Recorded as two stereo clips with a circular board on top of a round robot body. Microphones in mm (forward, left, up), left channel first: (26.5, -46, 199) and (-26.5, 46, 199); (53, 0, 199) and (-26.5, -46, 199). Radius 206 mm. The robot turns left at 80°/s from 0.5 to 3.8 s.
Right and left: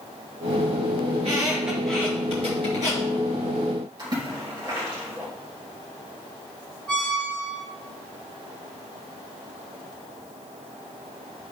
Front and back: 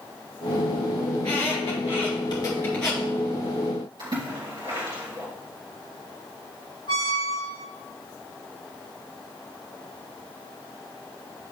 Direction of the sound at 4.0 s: 170° left.